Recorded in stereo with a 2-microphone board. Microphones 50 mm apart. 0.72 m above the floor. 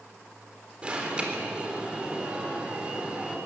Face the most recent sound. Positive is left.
turn(degrees=-20)  # may be behind; listen again after turning